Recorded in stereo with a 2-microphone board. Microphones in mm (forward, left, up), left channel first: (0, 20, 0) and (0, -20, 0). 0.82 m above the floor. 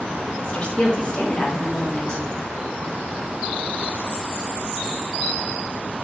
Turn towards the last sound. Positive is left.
turn(degrees=25)  # may be behind; listen again after turning